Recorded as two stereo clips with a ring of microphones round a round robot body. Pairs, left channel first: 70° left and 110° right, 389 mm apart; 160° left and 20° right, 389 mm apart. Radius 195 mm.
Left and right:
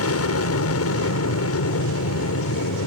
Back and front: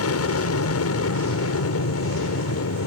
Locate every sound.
0.0 s an aircraft: 115° left